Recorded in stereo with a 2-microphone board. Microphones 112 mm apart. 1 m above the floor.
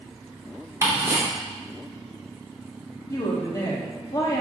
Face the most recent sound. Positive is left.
turn(degrees=30)  # may be behind; listen again after turning